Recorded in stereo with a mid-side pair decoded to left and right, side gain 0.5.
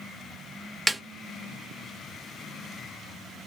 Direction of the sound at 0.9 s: 5° right.